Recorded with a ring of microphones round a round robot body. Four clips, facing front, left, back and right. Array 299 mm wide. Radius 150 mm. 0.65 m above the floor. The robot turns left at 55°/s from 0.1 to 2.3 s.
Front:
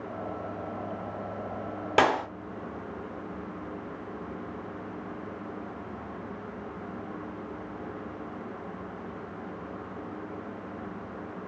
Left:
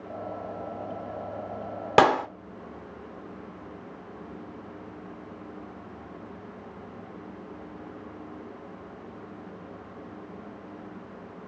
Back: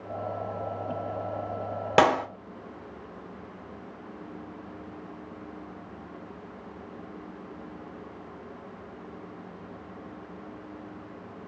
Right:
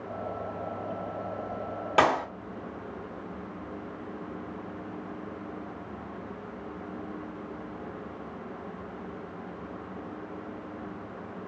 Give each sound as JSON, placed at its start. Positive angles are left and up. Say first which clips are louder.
{"t": 2.0, "sound": "a clap", "louder": "left 4 dB, back 3 dB", "azimuth_deg": 115, "distance_m": 1.0}